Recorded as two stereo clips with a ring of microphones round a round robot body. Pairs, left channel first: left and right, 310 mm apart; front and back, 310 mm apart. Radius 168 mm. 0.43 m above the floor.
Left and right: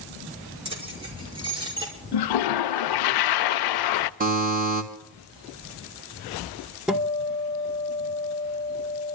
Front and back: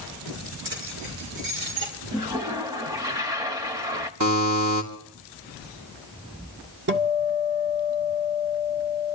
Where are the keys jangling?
160° right, 5 m; by 1.9 s 165° right, 6 m.